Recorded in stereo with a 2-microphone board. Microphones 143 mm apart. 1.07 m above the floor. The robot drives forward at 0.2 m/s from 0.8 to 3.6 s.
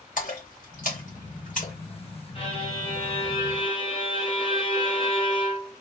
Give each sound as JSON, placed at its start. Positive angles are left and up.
{"t": 0.2, "sound": "a splash", "side_deg": 65, "distance_m": 1.9}
{"t": 2.4, "sound": "a violin", "side_deg": 40, "distance_m": 1.2}